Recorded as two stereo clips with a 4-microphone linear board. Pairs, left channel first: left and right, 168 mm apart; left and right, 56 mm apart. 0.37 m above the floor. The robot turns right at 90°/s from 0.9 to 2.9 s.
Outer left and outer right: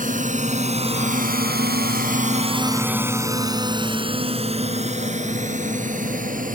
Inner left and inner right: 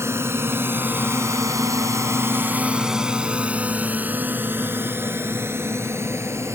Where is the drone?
50° right (ahead or behind); by 6.5 s 55° right (ahead or behind).